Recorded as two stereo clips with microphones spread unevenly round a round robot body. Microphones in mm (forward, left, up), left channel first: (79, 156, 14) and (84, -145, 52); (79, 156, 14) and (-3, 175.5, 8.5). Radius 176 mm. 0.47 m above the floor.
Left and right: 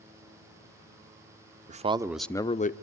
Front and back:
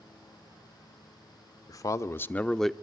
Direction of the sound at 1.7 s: 25° right.